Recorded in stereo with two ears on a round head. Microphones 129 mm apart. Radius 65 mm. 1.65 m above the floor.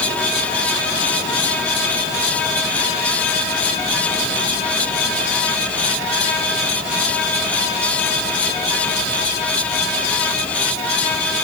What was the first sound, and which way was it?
Only background noise.